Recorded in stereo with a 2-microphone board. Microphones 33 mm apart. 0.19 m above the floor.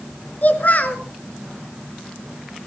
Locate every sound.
0.4 s a child speaking: 50° left (ahead or behind), 2.5 m